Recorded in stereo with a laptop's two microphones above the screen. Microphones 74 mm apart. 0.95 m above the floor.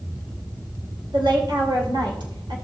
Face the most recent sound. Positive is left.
turn(degrees=-80)